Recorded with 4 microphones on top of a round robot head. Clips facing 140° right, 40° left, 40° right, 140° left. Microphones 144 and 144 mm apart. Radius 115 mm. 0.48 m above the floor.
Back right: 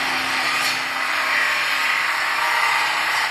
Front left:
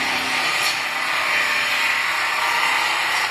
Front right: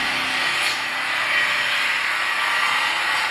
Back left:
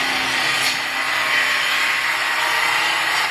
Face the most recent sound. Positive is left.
turn(degrees=105)